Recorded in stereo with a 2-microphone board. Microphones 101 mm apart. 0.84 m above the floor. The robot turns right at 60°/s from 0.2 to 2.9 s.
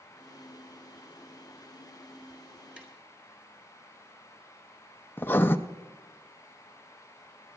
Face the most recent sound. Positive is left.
turn(degrees=20)  # may be behind; listen again after turning